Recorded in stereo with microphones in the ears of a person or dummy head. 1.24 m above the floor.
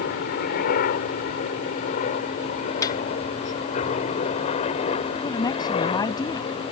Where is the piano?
20° left (ahead or behind).